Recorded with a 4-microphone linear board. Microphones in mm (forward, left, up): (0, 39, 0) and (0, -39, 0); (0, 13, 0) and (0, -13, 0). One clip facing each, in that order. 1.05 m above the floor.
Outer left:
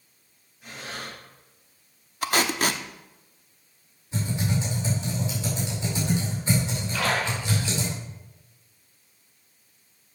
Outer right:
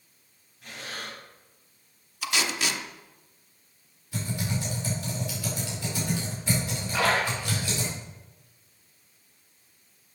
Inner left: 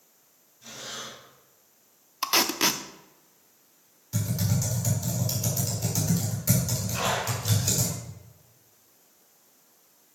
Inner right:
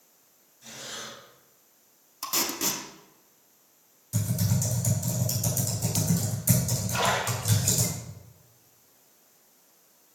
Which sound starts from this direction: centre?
Breathing, at 0.6 s.